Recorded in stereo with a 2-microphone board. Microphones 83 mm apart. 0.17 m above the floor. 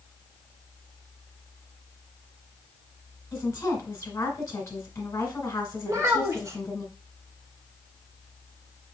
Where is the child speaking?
40° right (ahead or behind), 1.2 m.